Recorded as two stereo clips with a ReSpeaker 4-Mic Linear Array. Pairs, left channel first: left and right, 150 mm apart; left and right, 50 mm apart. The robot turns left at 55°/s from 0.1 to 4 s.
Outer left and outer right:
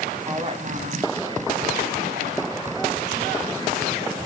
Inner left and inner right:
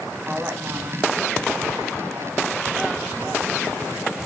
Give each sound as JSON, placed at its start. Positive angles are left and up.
{"t": 0.3, "sound": "a woman speaking", "azimuth_deg": -25, "distance_m": 5.5}